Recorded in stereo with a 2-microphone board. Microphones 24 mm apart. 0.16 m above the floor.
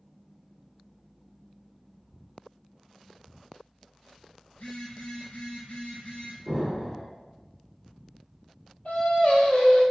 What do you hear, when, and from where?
4.5 s a phone buzzing: 65° left (ahead or behind), 1.5 m
6.5 s an explosion: 10° left (ahead or behind), 1.6 m
8.8 s singing: 65° left (ahead or behind), 1.2 m